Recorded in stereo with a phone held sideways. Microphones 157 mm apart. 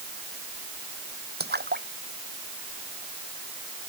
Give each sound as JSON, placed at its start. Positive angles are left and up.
{"t": 1.4, "sound": "a splash", "side_deg": -80}